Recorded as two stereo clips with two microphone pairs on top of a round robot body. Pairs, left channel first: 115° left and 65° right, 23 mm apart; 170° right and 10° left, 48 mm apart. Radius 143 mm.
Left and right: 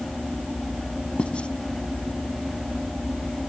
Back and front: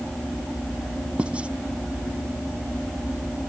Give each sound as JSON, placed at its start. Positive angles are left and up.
{"t": 1.2, "sound": "writing", "azimuth_deg": 75}